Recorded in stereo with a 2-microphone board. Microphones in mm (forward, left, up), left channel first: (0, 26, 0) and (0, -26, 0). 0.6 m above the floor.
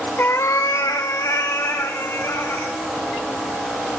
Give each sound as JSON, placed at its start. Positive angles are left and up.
{"t": 0.2, "sound": "a cat meowing", "side_deg": 45, "distance_m": 0.5}